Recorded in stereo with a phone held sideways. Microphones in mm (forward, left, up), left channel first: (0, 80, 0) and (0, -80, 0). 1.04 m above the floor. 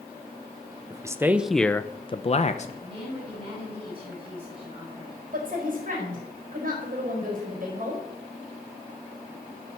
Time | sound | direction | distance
0.9 | a man speaking | 20° right (ahead or behind) | 0.8 m
2.8 | a woman speaking | 35° right (ahead or behind) | 5 m
5.3 | a woman speaking | 60° right (ahead or behind) | 4 m